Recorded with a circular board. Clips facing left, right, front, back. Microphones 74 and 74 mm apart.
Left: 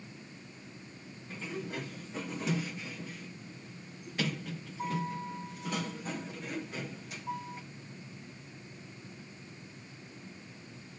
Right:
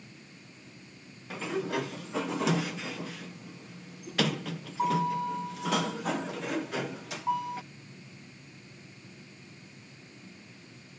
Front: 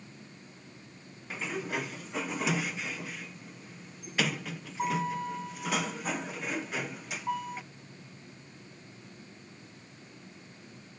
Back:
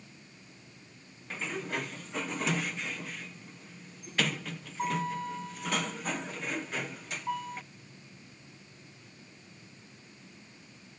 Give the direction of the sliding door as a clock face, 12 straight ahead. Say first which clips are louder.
Right 8 dB, front 1 dB; 3 o'clock.